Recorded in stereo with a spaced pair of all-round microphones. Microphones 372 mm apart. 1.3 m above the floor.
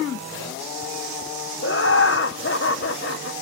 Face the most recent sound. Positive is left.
turn(degrees=35)  # may be behind; listen again after turning